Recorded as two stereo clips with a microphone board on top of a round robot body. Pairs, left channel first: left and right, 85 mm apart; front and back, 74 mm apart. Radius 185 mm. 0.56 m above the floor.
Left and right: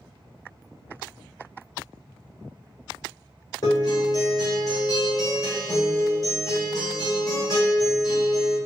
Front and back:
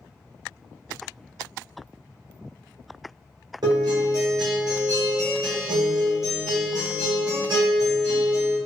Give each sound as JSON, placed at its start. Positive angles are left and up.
{"t": 3.6, "sound": "a guitar", "azimuth_deg": 145, "distance_m": 0.7}